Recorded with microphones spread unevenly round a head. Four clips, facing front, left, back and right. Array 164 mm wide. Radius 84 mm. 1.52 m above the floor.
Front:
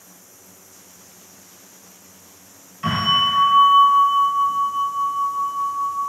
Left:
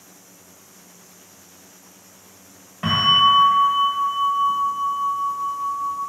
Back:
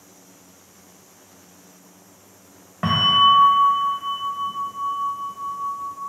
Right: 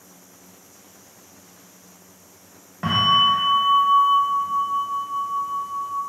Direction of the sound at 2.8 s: 170° right.